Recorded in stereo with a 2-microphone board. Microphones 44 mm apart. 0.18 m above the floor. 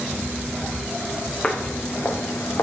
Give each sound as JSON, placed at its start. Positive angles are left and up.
{"t": 1.4, "sound": "footsteps", "side_deg": 25, "distance_m": 0.7}